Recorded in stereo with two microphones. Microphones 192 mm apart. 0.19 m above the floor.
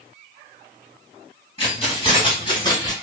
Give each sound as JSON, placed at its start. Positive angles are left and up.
{"t": 1.6, "sound": "keys jangling", "side_deg": 30, "distance_m": 1.1}